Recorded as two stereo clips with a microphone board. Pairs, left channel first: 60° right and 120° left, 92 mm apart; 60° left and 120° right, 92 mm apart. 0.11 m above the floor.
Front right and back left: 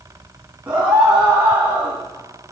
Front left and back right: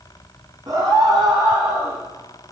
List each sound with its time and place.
0.7 s a scream: 165° right, 8 m